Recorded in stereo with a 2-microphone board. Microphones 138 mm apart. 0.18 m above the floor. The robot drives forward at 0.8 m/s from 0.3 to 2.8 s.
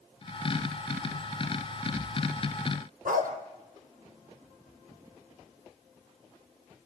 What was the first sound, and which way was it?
A dog barking, 75° right (ahead or behind).